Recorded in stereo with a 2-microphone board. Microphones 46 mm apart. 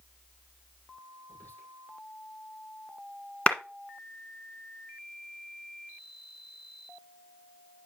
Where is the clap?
25° left (ahead or behind), 1.4 m.